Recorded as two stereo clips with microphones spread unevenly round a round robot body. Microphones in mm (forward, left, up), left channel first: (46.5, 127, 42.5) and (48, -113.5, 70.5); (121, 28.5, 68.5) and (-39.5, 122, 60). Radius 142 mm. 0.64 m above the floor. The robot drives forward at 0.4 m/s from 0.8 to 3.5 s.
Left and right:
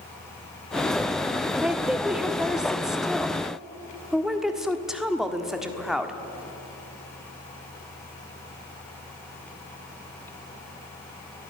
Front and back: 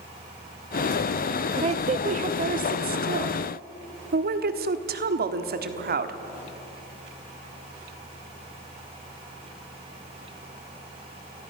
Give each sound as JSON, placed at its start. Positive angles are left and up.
{"t": 1.6, "sound": "a woman speaking", "azimuth_deg": 175, "distance_m": 0.8}